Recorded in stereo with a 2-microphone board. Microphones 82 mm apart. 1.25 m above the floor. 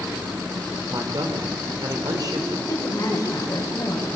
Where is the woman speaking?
40° left (ahead or behind), 6.5 m.